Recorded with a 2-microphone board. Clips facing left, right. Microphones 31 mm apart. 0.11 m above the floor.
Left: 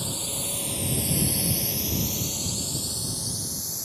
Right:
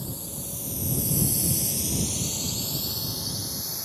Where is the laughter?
No laughter in this recording.